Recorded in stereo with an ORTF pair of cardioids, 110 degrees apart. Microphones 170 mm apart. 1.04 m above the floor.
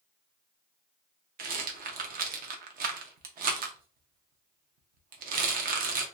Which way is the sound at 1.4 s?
60° right.